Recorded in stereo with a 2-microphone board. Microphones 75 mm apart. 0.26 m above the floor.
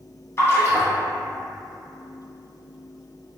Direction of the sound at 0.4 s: 35° left (ahead or behind).